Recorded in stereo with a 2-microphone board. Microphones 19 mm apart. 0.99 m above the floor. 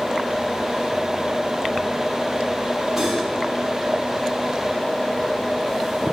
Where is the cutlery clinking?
5° right (ahead or behind), 4 m.